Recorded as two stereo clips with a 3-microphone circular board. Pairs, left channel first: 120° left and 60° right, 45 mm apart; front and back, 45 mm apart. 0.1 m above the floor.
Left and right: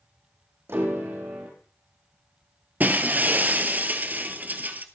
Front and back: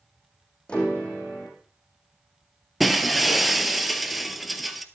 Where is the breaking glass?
95° right, 1.4 m.